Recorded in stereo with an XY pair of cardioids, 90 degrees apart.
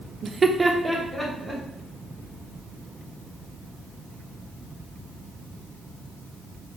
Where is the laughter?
55° right, 0.5 m; by 1.6 s 5° left, 1.8 m.